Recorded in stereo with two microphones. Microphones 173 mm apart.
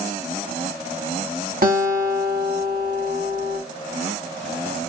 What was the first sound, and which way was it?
A guitar, 60° right (ahead or behind).